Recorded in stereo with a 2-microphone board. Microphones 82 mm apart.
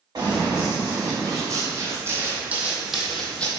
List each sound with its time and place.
0.1 s running footsteps: 55° right (ahead or behind), 1.8 m; by 3.5 s 15° left (ahead or behind), 0.7 m